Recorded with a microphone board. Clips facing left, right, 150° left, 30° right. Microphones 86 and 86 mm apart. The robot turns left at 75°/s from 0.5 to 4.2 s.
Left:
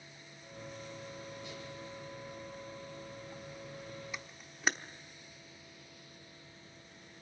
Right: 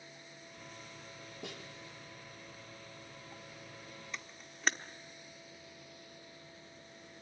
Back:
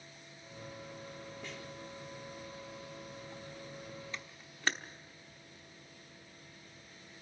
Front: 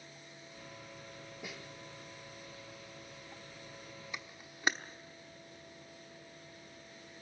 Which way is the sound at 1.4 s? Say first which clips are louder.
Even, front 1 dB; 110° right.